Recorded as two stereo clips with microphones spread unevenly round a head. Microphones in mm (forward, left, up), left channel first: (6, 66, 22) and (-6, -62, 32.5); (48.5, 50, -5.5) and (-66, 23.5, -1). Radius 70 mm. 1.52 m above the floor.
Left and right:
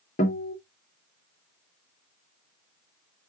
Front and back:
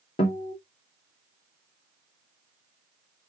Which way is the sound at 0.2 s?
50° left.